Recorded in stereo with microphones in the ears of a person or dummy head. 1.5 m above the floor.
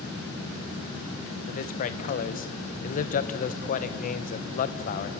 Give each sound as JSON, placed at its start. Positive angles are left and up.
{"t": 1.5, "sound": "a man speaking", "side_deg": 40, "distance_m": 1.3}